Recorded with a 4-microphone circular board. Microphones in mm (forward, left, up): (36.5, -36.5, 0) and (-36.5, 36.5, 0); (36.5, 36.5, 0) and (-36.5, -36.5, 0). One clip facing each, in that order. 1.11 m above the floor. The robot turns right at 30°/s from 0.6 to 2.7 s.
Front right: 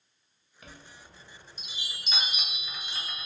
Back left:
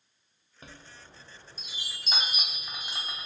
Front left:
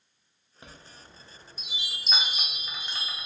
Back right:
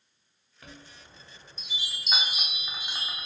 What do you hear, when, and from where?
0.6 s a chime: 100° left, 0.7 m; by 3.3 s 160° left, 0.7 m